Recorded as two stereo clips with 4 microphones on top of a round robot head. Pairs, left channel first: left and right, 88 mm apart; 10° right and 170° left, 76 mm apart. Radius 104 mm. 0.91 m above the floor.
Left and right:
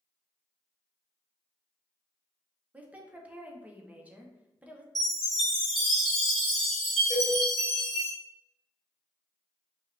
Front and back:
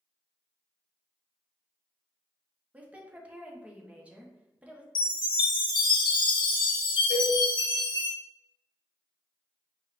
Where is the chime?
5° right, 1.4 m.